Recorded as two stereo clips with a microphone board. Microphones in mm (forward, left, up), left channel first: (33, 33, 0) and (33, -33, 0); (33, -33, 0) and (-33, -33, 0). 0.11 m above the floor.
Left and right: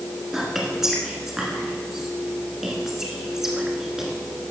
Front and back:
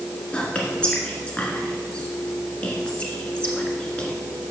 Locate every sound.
0.3 s whispering: 25° right, 1.2 m